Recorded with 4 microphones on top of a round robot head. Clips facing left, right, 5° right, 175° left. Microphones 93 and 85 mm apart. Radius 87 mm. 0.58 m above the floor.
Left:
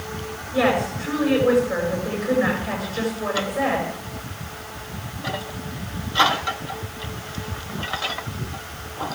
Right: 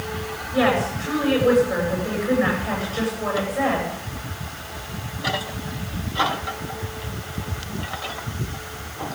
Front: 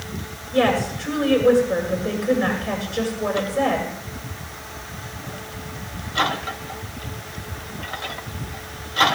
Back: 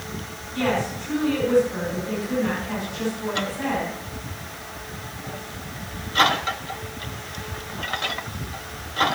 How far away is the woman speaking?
About 9.5 m.